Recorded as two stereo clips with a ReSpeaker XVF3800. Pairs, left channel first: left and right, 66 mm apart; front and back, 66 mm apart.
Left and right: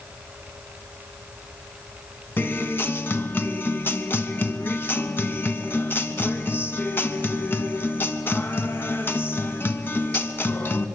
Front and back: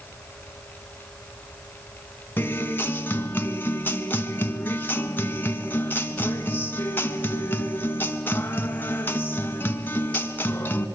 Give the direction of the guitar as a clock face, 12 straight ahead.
11 o'clock.